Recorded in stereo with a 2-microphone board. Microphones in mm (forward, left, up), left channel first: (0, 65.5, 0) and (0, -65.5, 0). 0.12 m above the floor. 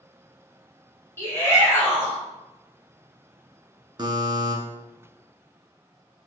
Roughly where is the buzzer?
Right.